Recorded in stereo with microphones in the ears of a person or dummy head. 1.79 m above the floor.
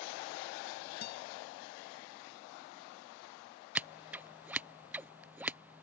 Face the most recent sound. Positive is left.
turn(degrees=-10)  # may be behind; listen again after turning